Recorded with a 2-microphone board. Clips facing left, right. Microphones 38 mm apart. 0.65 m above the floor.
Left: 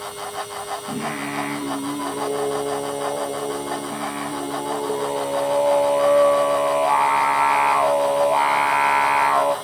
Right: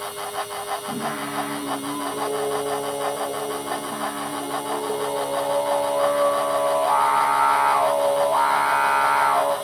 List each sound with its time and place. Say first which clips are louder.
0.9 s singing: left 1 dB; 65° left (ahead or behind), 3 m